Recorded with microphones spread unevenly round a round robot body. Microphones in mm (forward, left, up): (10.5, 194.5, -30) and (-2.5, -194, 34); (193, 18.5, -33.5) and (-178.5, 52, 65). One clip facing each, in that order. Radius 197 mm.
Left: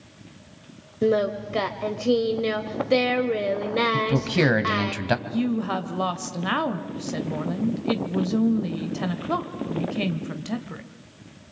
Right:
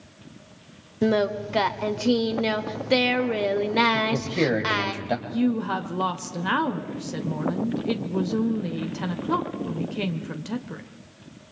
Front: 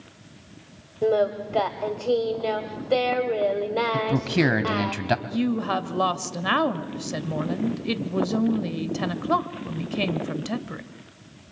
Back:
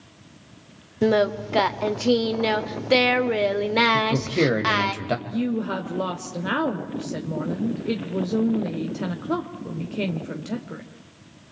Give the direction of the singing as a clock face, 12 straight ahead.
6 o'clock.